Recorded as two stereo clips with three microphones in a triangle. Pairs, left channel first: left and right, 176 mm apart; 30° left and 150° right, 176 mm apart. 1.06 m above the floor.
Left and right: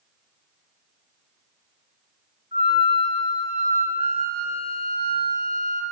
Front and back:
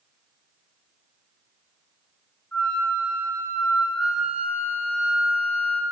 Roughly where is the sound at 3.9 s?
Ahead right.